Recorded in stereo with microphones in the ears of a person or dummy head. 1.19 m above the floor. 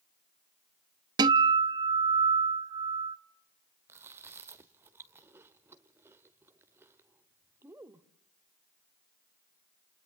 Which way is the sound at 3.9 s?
15° right (ahead or behind).